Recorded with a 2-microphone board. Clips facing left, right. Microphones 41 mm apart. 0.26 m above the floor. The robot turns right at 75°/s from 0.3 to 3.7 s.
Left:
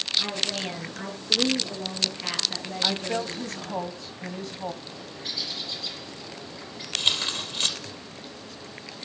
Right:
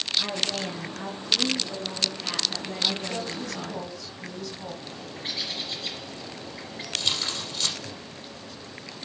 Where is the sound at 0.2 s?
5° right, 3.5 m; by 3.8 s 110° right, 3.5 m.